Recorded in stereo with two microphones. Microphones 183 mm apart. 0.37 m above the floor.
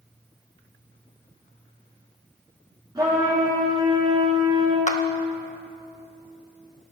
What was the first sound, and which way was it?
A trumpet, 25° right (ahead or behind).